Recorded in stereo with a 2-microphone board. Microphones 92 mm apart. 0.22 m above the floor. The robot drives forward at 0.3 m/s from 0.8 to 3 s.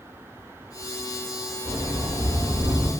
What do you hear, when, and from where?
1.6 s a sliding door: 35° right (ahead or behind), 0.9 m; by 2.9 s 55° right (ahead or behind), 0.6 m